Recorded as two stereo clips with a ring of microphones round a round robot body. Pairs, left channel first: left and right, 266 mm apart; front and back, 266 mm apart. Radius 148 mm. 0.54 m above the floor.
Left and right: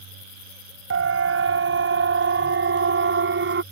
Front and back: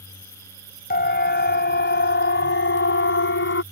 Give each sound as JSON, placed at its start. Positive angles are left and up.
{"t": 0.9, "sound": "a siren", "azimuth_deg": -55}